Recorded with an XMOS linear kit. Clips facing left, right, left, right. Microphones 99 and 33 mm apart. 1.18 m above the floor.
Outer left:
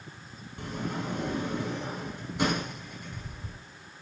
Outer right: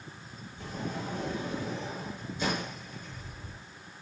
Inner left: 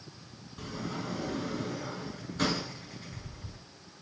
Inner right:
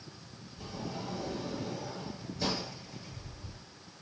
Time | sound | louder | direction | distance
0.6 | a sliding door | outer left 3 dB, inner left 3 dB | 75° left (ahead or behind) | 5 m